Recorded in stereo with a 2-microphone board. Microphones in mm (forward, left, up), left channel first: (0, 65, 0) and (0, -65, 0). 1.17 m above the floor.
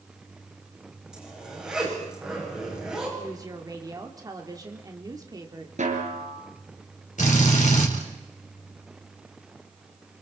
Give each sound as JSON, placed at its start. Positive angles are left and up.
{"t": 1.1, "sound": "a zipper", "side_deg": -5, "distance_m": 7.5}
{"t": 3.2, "sound": "a woman speaking", "side_deg": -30, "distance_m": 2.5}
{"t": 5.8, "sound": "a snare drum", "side_deg": -65, "distance_m": 3.0}
{"t": 7.2, "sound": "a drill", "side_deg": 65, "distance_m": 4.5}